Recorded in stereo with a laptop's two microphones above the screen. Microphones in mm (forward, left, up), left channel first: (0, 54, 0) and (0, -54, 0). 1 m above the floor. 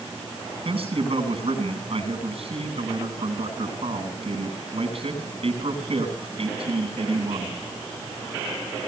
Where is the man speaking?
60° right (ahead or behind), 8.5 m.